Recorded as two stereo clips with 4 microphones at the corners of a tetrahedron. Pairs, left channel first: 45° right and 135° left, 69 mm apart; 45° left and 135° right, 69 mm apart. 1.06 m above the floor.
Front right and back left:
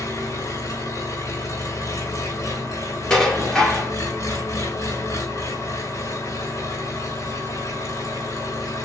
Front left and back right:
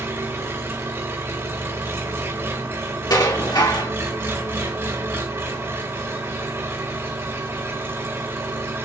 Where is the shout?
I don't hear a shout.